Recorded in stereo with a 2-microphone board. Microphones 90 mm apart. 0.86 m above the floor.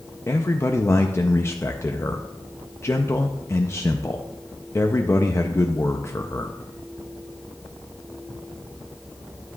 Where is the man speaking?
30° left (ahead or behind), 0.6 m.